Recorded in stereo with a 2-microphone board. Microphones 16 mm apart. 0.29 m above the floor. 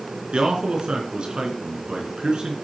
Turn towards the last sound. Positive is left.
turn(degrees=-60)  # may be behind; listen again after turning